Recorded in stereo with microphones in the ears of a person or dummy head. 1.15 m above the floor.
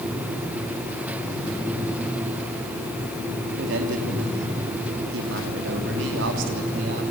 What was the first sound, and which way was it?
A man speaking, 65° right (ahead or behind).